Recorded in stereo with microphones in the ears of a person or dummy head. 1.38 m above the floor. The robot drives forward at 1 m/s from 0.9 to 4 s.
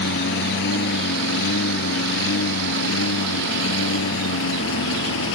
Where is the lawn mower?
65° left (ahead or behind); by 5.3 s 75° left (ahead or behind).